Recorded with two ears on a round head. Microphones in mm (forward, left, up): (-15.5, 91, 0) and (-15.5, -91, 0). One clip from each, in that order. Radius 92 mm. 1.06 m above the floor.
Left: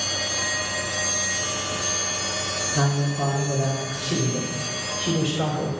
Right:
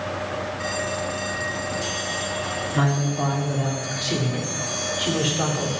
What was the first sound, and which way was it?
A man speaking, 75° right (ahead or behind).